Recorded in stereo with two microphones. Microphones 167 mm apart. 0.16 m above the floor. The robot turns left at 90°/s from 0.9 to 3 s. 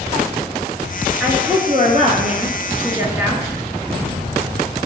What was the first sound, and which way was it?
A woman speaking, straight ahead.